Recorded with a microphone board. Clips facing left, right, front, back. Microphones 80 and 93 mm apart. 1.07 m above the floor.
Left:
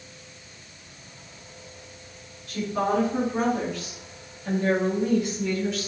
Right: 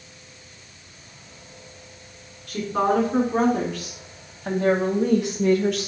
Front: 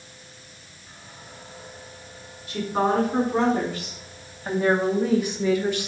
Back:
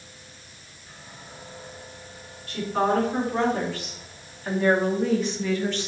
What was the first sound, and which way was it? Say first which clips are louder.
A woman speaking: right 3 dB, front 1 dB; 80° right.